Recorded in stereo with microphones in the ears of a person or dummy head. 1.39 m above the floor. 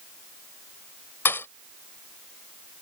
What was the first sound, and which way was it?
A thud, 15° left (ahead or behind).